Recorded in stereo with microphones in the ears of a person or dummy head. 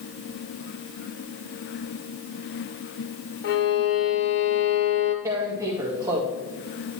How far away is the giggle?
I don't hear a giggle.